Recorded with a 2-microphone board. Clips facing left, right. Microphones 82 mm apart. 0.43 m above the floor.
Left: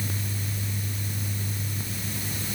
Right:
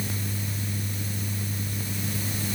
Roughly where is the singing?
No singing in this recording.